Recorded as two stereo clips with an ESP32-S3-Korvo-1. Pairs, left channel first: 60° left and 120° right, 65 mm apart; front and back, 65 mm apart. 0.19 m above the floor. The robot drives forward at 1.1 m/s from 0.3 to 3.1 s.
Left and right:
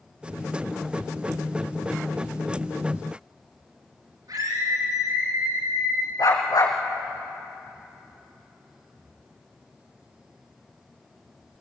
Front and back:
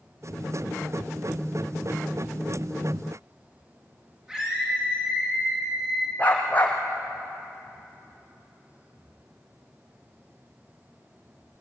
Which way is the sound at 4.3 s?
105° right.